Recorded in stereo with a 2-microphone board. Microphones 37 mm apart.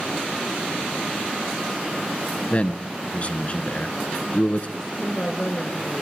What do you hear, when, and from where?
2.5 s a man speaking: 35° left (ahead or behind), 1.3 m
4.8 s a woman speaking: 15° left (ahead or behind), 2.5 m